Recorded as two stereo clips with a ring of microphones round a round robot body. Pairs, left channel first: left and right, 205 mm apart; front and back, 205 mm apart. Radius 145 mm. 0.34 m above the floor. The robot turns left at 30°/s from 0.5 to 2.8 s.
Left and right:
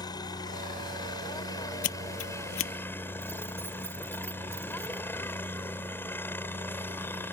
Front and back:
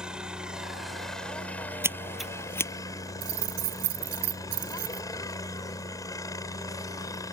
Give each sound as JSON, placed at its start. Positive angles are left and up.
{"t": 0.0, "sound": "a helicopter", "azimuth_deg": 100}
{"t": 1.8, "sound": "scissors", "azimuth_deg": 100}
{"t": 3.2, "sound": "keys jangling", "azimuth_deg": -170}